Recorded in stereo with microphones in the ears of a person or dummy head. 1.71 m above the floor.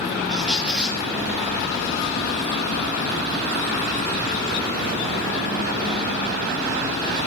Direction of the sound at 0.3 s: 5° right (ahead or behind).